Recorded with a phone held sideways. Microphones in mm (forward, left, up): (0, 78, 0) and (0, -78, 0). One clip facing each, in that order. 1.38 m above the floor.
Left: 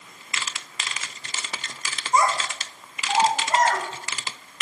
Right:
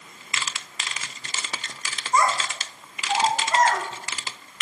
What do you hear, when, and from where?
2.1 s a child speaking: 10° left (ahead or behind), 0.7 m; by 3.8 s 45° left (ahead or behind), 2.5 m